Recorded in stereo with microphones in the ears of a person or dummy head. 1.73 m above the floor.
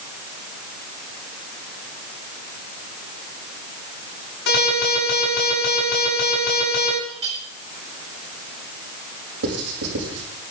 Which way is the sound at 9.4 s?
85° right.